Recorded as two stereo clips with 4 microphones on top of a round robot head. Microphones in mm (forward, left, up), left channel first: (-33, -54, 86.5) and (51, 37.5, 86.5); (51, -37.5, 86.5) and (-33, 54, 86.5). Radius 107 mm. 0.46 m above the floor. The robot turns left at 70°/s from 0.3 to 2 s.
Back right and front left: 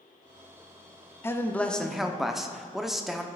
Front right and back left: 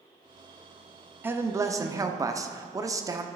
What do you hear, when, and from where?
1.2 s a man speaking: 175° right, 0.9 m; by 3.3 s 130° left, 0.9 m